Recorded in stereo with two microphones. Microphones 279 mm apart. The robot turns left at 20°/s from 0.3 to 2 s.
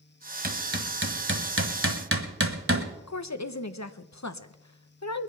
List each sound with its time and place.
0.4 s hammering: 35° right (ahead or behind), 1.4 m; by 2.9 s 50° right (ahead or behind), 1.4 m
3.1 s a woman speaking: 75° left (ahead or behind), 0.8 m